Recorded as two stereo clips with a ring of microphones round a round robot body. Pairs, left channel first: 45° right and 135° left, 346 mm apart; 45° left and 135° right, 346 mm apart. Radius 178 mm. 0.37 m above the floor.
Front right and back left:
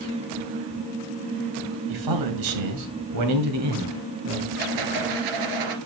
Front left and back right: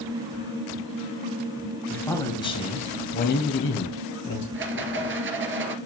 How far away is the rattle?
About 2 m.